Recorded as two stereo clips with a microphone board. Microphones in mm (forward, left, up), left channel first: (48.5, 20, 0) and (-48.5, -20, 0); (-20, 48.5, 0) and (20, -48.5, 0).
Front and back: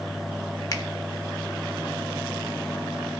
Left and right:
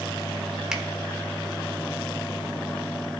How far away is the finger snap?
About 0.9 m.